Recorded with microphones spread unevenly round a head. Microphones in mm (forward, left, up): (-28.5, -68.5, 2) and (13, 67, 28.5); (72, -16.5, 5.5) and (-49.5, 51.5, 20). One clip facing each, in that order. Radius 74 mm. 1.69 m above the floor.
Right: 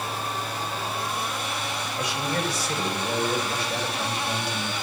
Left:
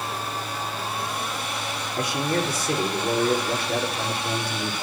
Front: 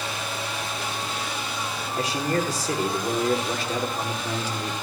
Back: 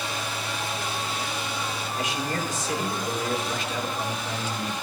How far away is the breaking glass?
No breaking glass in this recording.